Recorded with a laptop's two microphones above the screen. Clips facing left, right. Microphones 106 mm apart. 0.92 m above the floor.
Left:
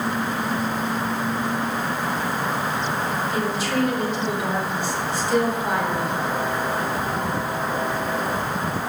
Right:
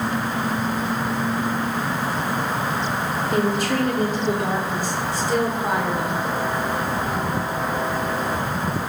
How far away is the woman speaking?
About 2.5 m.